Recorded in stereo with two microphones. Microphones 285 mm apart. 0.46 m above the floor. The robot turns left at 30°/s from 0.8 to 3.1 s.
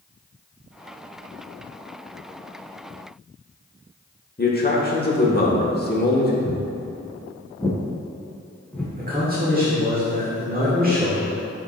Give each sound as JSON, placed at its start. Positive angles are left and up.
{"t": 4.4, "sound": "a man speaking", "side_deg": 35, "distance_m": 1.1}
{"t": 6.5, "sound": "footsteps", "side_deg": 35, "distance_m": 1.2}
{"t": 9.0, "sound": "a man speaking", "side_deg": -30, "distance_m": 1.3}